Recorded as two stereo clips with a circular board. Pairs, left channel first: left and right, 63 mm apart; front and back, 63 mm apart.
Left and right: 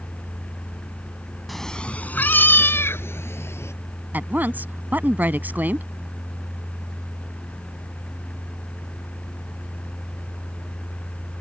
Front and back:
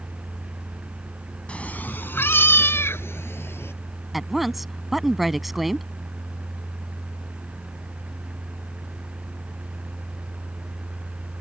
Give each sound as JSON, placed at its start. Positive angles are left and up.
{"t": 1.5, "sound": "a cat meowing", "azimuth_deg": 0}
{"t": 4.1, "sound": "a woman speaking", "azimuth_deg": -95}